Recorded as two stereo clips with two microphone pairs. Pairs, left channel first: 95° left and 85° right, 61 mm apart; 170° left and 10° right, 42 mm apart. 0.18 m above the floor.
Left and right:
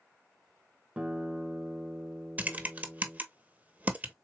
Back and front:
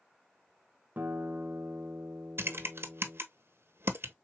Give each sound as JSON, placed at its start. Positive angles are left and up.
{"t": 1.0, "sound": "a guitar", "azimuth_deg": -20, "distance_m": 0.8}
{"t": 2.4, "sound": "typing on a keyboard", "azimuth_deg": -20, "distance_m": 0.8}